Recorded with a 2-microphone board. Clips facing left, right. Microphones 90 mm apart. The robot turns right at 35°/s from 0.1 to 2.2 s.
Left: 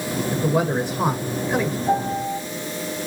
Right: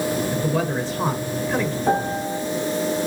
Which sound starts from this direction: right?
A piano, at 1.9 s.